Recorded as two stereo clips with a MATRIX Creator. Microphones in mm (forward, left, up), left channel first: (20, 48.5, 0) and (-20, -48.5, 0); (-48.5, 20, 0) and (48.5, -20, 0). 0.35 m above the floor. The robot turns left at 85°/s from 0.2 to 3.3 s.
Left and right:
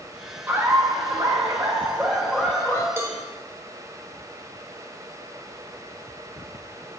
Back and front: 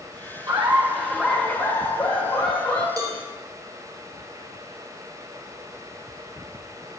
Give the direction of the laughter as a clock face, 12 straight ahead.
2 o'clock.